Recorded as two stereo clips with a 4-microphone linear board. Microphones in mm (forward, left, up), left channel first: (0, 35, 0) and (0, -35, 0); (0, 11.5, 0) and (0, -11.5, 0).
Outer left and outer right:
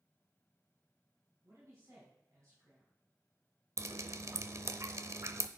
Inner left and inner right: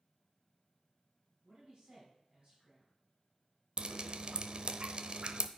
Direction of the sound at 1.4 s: 45° right (ahead or behind).